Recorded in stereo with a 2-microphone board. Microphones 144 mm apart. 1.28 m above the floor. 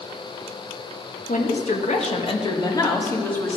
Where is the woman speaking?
70° left (ahead or behind), 1.5 m; by 3.6 s 10° left (ahead or behind), 2 m.